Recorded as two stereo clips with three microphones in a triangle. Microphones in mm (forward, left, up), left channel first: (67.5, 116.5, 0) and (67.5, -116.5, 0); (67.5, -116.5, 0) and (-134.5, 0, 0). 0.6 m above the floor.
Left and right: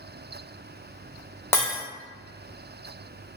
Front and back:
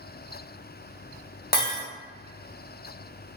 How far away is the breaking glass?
About 0.6 m.